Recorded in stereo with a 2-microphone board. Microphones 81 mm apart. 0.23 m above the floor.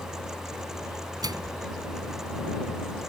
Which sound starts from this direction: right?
A microwave, at 1.2 s.